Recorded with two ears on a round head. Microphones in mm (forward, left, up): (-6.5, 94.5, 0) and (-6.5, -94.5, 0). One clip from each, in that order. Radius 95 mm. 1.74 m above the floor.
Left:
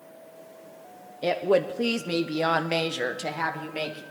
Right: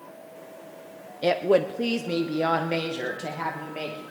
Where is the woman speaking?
10° right (ahead or behind), 0.6 m; by 4.0 s 45° left (ahead or behind), 1.7 m.